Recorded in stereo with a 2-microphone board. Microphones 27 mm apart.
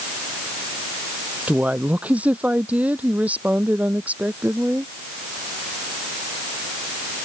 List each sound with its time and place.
1.5 s a woman speaking: 65° right (ahead or behind); by 4.9 s 70° right (ahead or behind)